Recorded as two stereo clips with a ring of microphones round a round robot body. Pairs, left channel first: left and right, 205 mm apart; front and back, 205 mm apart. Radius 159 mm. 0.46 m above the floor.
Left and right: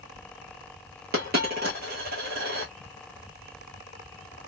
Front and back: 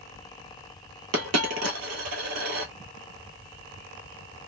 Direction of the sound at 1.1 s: 150° right.